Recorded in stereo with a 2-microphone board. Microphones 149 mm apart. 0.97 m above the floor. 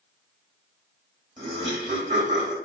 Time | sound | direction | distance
1.4 | laughter | 45° right (ahead or behind) | 1.7 m